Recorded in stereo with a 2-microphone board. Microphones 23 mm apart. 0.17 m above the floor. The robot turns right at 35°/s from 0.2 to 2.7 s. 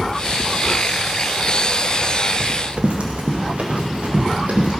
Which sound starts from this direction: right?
Running footsteps, at 2.4 s.